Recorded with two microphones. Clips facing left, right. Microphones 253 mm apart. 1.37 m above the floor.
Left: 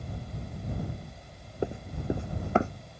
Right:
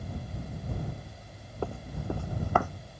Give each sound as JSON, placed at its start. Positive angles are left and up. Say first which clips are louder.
{"t": 1.6, "sound": "running footsteps", "louder": "left 3 dB", "side_deg": 20}